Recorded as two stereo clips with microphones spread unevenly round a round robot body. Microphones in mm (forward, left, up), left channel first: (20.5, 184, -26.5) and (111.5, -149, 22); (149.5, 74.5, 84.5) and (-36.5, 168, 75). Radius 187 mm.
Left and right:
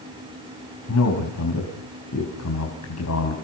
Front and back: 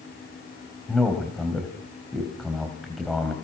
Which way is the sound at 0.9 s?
65° left.